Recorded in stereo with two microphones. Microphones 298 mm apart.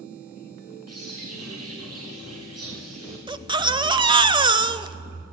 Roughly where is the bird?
Right.